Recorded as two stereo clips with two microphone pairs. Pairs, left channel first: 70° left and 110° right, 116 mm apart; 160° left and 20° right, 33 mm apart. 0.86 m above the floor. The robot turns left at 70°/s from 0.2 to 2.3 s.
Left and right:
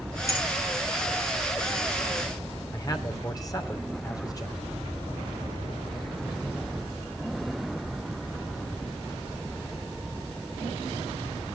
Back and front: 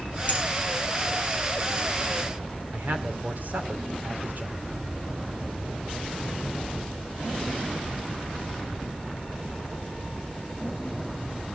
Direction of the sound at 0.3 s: 130° left.